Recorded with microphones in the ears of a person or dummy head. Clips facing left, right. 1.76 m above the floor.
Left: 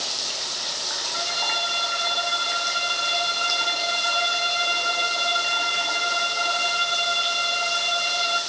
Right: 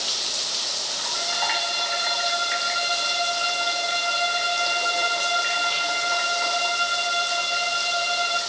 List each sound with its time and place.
1.1 s a violin: 65° left (ahead or behind), 9 m